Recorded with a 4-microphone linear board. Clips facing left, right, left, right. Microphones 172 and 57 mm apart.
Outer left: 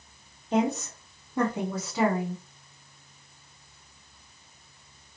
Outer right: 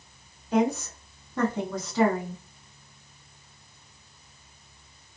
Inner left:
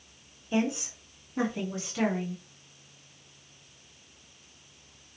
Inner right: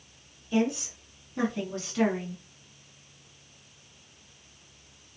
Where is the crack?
I don't hear a crack.